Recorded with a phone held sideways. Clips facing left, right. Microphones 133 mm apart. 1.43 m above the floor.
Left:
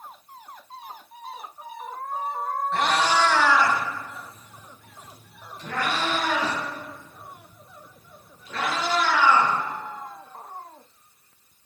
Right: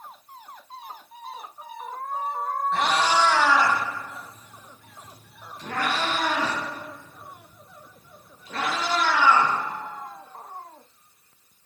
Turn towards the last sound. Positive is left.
turn(degrees=-45)  # may be behind; listen again after turning